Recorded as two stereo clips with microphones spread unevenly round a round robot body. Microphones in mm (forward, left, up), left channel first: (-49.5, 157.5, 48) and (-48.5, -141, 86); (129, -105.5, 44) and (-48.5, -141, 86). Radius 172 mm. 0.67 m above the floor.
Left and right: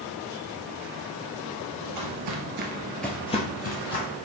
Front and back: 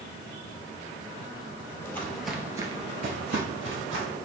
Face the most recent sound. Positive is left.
turn(degrees=145)